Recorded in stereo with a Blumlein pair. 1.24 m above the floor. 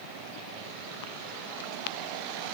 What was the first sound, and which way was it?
Only background noise.